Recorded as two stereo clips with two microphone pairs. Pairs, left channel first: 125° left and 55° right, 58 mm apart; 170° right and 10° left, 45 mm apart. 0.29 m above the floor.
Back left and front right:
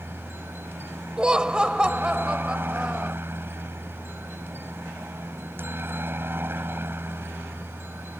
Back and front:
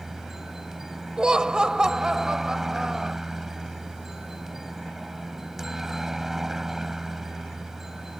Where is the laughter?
20° right.